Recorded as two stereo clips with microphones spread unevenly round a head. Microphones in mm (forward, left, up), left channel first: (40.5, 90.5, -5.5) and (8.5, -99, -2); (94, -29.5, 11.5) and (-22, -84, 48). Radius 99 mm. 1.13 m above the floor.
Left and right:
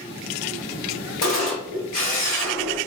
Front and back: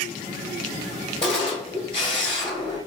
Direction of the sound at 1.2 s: 90° left.